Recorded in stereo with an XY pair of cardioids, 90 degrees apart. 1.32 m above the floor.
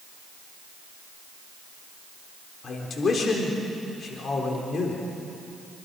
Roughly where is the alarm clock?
I don't hear an alarm clock.